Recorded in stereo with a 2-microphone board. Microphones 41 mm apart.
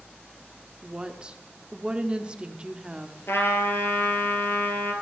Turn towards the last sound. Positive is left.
turn(degrees=70)  # may be behind; listen again after turning